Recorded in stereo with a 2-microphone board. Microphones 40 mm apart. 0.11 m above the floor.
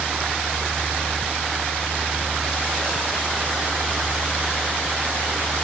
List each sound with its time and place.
0.0 s a helicopter: 75° right (ahead or behind)